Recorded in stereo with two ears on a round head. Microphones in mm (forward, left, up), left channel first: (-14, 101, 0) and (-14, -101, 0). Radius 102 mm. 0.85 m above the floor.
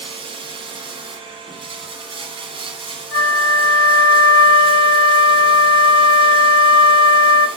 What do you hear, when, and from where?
0.0 s running water: 25° right (ahead or behind), 1.8 m
3.1 s a flute: 55° left (ahead or behind), 1.2 m